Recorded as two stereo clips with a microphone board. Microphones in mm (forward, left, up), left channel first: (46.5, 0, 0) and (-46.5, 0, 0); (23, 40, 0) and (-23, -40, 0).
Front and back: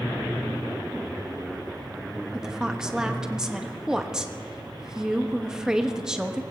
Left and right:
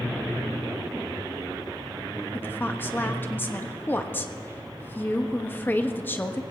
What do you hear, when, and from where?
2.3 s a woman speaking: 105° left, 1.1 m